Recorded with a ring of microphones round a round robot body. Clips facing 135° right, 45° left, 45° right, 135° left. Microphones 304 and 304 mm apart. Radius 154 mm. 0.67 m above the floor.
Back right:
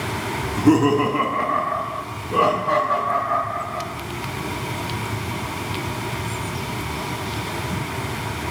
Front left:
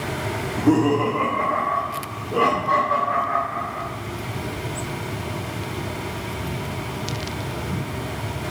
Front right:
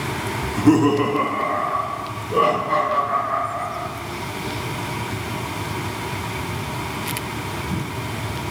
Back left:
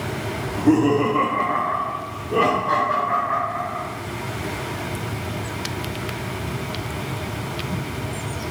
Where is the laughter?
60° right, 0.9 m; by 3.8 s 175° left, 3 m.